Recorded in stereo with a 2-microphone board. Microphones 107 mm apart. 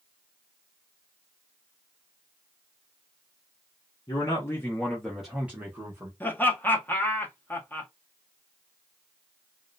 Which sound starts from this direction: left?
A man speaking, at 4.1 s.